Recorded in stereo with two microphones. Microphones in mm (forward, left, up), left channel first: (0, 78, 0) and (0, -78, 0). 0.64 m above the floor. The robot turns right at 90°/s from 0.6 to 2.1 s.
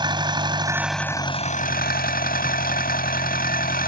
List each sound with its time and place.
0.0 s an engine running: 30° right; by 3.9 s 105° left